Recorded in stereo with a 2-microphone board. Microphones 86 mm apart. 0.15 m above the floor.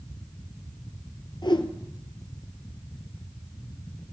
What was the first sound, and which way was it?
A whoosh, 55° left (ahead or behind).